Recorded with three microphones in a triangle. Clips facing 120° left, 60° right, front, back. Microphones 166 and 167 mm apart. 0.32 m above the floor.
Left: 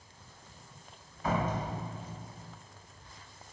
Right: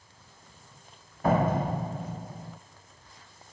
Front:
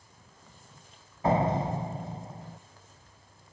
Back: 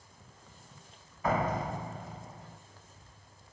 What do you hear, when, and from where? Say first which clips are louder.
1.2 s a door slam: right 7 dB, front 5 dB; 55° right, 1.0 m